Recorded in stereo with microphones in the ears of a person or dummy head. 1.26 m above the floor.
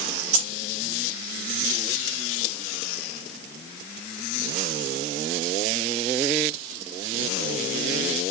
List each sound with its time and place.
0.3 s keys jangling: 35° right (ahead or behind), 1.7 m